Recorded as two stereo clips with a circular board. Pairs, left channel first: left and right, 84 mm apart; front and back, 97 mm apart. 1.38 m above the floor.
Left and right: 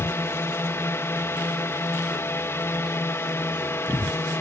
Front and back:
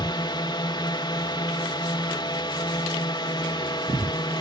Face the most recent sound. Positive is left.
turn(degrees=35)